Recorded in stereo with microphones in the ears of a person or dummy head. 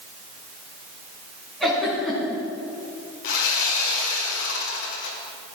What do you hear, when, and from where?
1.6 s a giggle: 5° left (ahead or behind), 5.5 m
3.2 s sawing: 70° left (ahead or behind), 2.5 m